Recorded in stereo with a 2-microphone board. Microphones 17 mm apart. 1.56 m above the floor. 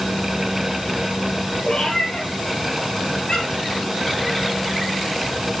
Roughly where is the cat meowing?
Left.